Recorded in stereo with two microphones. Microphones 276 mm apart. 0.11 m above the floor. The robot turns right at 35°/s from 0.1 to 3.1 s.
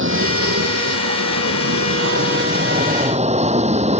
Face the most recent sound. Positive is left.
turn(degrees=-25)  # may be behind; listen again after turning